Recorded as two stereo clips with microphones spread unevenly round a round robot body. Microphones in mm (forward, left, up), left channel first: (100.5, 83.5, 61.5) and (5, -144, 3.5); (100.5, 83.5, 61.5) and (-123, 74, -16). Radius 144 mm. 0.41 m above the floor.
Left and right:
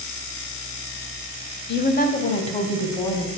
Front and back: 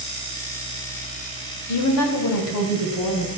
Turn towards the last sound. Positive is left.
turn(degrees=-10)